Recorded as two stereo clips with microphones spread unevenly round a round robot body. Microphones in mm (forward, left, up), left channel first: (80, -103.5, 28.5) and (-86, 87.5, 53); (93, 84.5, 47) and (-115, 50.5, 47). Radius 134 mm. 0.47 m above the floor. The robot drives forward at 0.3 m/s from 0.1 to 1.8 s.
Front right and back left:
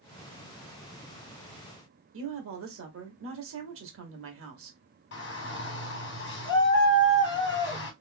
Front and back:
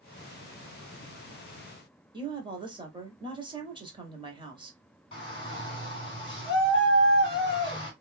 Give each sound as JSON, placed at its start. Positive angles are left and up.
{"t": 2.1, "sound": "a woman speaking", "azimuth_deg": 130, "distance_m": 1.2}
{"t": 5.1, "sound": "a shout", "azimuth_deg": -55, "distance_m": 1.7}